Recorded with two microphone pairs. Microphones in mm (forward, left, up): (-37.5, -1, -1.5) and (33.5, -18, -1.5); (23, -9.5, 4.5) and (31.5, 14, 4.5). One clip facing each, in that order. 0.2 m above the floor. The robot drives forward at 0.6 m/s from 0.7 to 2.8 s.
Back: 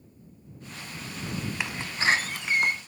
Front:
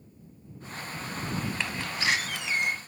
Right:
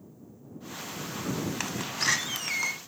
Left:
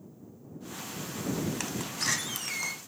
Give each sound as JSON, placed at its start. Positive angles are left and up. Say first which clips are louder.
{"t": 1.6, "sound": "a door slam", "louder": "back 6 dB, right 3 dB", "azimuth_deg": -135, "distance_m": 0.7}